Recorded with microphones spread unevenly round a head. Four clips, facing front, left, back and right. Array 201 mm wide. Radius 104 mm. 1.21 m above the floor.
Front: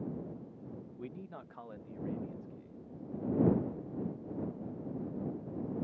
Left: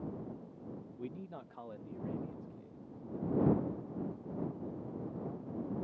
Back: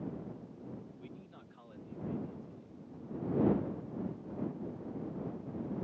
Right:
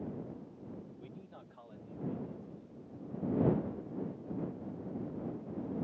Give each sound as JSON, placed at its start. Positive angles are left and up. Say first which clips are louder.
{"t": 1.0, "sound": "a man speaking", "louder": "left 6 dB, front 6 dB", "azimuth_deg": 70}